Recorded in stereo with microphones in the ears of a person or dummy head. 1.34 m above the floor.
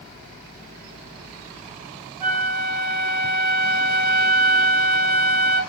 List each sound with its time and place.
2.2 s a flute: centre (ahead or behind), 1.0 m